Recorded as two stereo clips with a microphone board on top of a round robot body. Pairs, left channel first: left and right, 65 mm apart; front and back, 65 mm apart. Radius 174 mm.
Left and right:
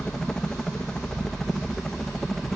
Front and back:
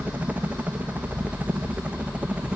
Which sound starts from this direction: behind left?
A helicopter, at 0.0 s.